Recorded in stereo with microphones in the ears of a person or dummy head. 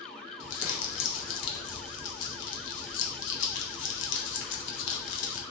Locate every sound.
0.4 s crumpling: 60° left (ahead or behind), 0.6 m